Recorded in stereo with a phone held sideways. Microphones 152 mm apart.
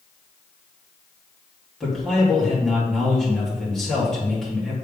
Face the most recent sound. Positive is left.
turn(degrees=5)  # may be behind; listen again after turning